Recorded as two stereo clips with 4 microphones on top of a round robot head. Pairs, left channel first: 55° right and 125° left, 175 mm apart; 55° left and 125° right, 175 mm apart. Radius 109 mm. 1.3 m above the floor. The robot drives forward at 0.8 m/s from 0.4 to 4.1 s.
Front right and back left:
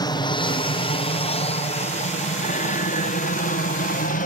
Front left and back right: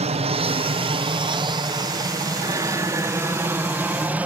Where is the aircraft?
105° right; by 4.3 s 45° right.